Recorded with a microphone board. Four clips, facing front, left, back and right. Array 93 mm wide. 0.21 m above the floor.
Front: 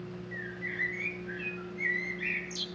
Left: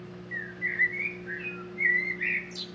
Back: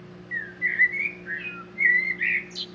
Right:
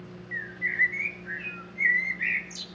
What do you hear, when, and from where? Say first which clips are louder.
0.3 s a bird: right 2 dB, back 12 dB; 170° right, 0.8 m